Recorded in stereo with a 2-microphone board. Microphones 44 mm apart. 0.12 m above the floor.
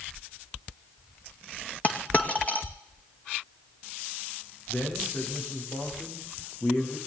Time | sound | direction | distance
1.8 | a dropped coin | 40° left (ahead or behind) | 2 m
4.7 | a man speaking | 75° left (ahead or behind) | 10 m